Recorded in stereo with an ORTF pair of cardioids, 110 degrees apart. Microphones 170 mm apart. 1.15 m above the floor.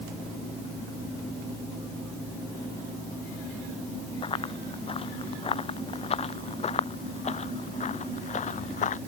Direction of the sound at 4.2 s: 30° left.